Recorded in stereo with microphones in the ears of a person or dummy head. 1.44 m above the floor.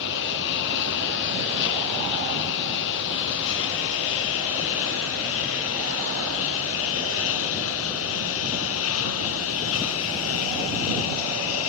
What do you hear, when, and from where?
0.0 s a lawn mower: 60° left (ahead or behind); by 11.7 s 75° left (ahead or behind)